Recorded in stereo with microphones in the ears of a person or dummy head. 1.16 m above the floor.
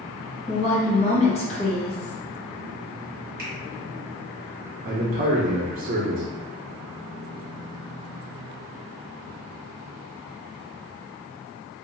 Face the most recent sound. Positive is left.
turn(degrees=-40)  # may be behind; listen again after turning